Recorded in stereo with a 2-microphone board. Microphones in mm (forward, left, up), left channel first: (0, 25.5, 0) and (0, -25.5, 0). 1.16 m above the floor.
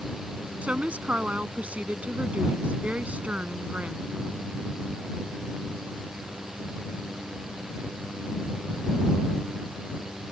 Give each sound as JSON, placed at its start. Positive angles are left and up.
{"t": 0.6, "sound": "a woman speaking", "side_deg": -25}